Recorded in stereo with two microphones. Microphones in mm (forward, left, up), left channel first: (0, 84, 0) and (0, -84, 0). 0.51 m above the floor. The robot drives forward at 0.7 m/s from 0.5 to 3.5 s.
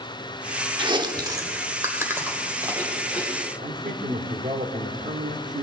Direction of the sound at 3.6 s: 50° right (ahead or behind).